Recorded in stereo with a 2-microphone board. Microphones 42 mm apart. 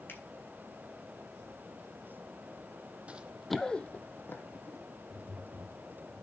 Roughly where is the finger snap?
Left.